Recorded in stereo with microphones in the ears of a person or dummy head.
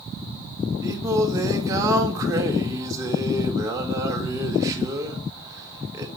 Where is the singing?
20° right (ahead or behind), 3 m.